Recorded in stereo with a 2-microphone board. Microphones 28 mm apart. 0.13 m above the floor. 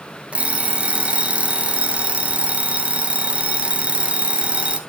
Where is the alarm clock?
45° right (ahead or behind), 1.1 m.